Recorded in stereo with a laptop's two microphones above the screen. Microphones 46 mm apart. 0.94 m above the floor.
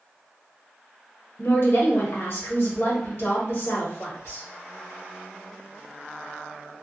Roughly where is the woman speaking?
Left.